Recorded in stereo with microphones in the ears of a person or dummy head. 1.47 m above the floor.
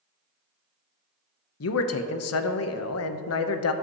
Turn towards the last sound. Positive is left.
turn(degrees=65)  # may be behind; listen again after turning